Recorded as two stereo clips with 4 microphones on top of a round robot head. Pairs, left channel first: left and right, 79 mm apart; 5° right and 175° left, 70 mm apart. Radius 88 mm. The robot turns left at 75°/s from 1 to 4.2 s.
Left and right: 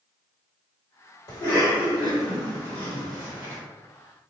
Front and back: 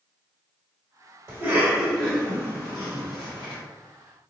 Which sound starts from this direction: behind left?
A cough, at 1.3 s.